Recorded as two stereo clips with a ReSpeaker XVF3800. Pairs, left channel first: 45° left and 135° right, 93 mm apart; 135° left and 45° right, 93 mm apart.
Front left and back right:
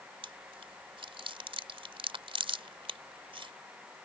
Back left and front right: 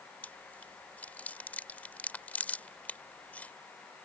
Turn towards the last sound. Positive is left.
turn(degrees=-150)